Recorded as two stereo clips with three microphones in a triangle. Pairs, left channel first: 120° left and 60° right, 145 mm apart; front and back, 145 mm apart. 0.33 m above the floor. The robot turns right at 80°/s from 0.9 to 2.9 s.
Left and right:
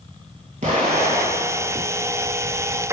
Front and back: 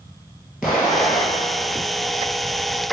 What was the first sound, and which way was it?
An explosion, 95° right.